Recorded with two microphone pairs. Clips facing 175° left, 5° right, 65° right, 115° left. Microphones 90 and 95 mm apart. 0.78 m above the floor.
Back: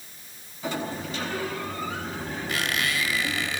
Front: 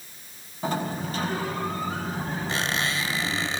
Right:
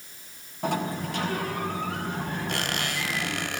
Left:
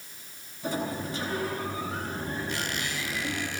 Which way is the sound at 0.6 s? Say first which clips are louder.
Front 2 dB, right 3 dB; 55° right.